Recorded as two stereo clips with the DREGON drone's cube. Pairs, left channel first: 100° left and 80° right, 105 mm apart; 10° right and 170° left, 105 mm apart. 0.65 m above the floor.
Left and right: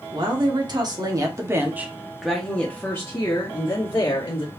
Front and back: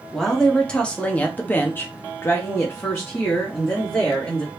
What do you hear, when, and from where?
0.1 s a woman speaking: 95° right, 1.3 m; by 4.5 s 60° left, 1.6 m